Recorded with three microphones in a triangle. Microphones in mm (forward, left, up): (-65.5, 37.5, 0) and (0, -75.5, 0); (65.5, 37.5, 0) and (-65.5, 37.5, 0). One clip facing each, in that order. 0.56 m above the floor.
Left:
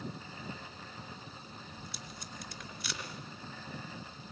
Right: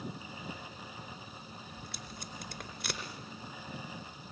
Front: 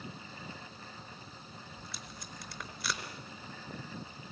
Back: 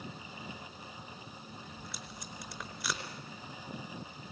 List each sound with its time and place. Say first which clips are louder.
1.8 s tape being pulled: right 1 dB, back 1 dB; 90° right, 4 m